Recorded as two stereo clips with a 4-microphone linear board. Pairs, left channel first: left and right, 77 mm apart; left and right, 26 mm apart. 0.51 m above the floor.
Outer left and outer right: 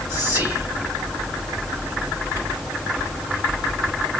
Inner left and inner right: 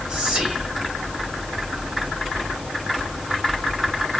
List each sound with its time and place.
0.1 s whispering: 45° right (ahead or behind), 1.8 m